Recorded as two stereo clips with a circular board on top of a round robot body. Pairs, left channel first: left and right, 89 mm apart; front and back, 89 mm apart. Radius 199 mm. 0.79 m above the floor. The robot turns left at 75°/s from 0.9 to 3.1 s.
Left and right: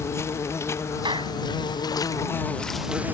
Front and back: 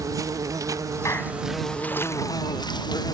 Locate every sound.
0.0 s an insect: 140° left; by 3.1 s 25° right
1.1 s a clap: 55° right; by 1.4 s 80° right